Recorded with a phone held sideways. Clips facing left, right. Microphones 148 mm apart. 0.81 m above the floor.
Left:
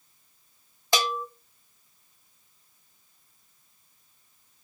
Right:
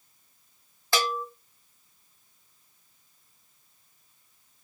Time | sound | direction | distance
0.9 | a bell | 20° left (ahead or behind) | 0.5 m